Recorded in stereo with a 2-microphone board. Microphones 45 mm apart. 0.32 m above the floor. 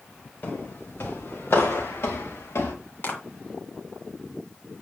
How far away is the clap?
About 2.5 m.